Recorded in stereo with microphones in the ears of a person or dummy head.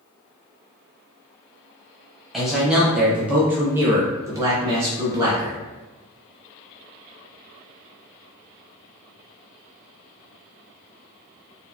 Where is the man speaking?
Centre (ahead or behind), 1.2 m; by 5.6 s 15° right (ahead or behind), 1.0 m.